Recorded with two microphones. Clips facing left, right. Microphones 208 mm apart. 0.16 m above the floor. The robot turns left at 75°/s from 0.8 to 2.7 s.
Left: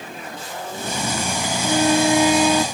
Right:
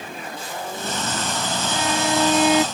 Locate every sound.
1.6 s a violin: 60° left; by 2.6 s 15° right